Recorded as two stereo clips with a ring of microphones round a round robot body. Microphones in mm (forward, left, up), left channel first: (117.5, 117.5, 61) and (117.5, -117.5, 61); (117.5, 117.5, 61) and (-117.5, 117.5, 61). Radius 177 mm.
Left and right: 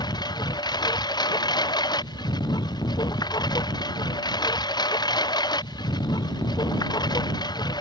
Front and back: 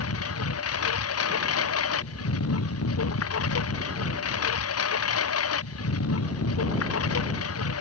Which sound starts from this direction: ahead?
A lawn mower, at 0.0 s.